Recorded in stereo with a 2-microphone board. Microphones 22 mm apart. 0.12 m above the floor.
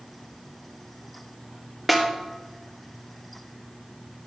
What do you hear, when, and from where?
1.9 s a snare drum: centre (ahead or behind), 1.5 m